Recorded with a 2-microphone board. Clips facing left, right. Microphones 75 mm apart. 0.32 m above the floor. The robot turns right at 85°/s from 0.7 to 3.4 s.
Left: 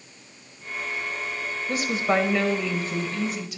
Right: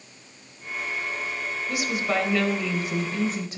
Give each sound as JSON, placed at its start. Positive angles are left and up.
{"t": 1.7, "sound": "a woman speaking", "azimuth_deg": 100, "distance_m": 1.1}